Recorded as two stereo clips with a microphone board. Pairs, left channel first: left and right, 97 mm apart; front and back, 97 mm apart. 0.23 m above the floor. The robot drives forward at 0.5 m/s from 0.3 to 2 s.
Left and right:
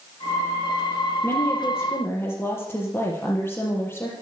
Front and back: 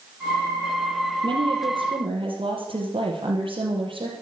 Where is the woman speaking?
150° left, 5 m; by 4.1 s 155° left, 5 m.